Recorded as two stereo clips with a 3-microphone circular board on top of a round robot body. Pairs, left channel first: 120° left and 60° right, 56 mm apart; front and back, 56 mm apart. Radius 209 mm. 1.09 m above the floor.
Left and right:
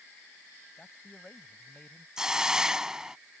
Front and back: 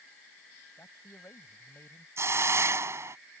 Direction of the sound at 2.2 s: 140° right.